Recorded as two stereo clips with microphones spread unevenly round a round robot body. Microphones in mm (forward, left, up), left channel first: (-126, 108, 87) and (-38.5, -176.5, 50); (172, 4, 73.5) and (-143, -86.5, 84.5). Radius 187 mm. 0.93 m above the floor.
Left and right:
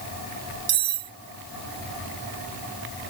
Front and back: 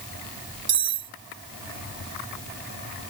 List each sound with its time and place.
0.7 s cutlery clinking: 110° right